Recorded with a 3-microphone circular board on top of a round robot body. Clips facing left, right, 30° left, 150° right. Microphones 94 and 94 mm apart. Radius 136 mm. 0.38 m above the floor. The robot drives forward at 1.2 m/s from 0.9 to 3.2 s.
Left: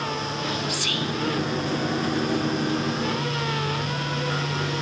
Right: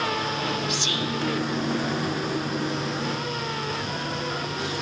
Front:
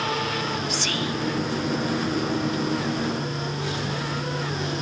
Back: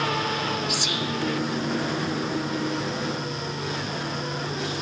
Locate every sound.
0.7 s whispering: 90° right, 0.9 m; by 1.2 s 135° right, 0.9 m